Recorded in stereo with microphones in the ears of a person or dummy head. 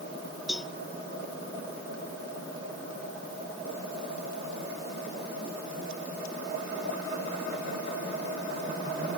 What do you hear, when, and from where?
0.5 s a cowbell: centre (ahead or behind)